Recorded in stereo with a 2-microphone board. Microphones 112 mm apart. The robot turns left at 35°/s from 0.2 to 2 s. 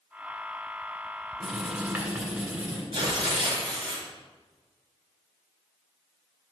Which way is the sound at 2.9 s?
50° right (ahead or behind).